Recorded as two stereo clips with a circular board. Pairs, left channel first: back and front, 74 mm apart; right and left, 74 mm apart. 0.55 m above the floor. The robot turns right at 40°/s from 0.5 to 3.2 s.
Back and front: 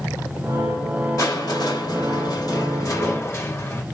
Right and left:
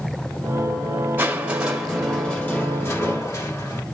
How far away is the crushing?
About 1.7 m.